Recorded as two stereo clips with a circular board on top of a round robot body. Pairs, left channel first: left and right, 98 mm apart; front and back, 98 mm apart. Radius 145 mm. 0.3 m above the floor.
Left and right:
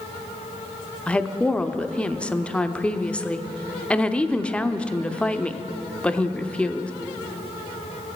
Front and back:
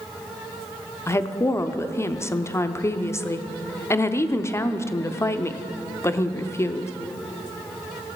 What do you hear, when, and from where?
1.1 s a woman speaking: 25° left, 0.9 m